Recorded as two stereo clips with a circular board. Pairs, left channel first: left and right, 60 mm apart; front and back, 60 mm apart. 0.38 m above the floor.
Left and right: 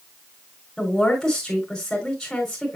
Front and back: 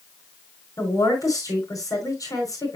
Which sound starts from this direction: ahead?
A woman speaking, at 0.8 s.